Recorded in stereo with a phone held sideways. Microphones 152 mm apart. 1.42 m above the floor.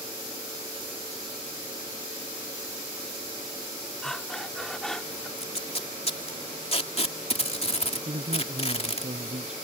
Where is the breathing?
5° left (ahead or behind).